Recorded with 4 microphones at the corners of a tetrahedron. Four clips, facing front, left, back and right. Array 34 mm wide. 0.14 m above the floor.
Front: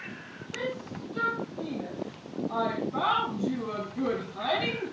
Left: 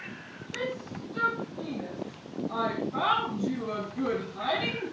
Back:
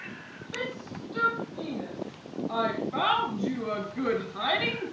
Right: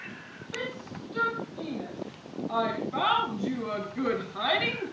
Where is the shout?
150° right, 7 m; by 4.9 s 125° right, 2 m.